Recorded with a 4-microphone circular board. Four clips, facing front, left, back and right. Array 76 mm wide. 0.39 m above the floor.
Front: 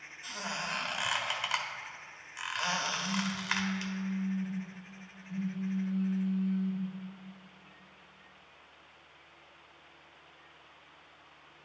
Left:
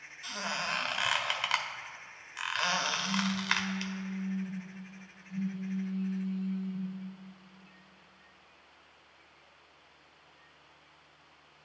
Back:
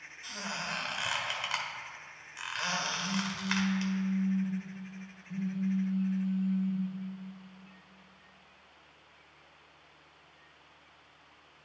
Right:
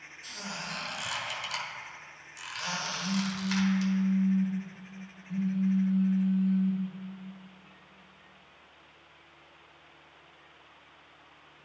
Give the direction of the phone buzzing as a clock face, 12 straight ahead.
3 o'clock.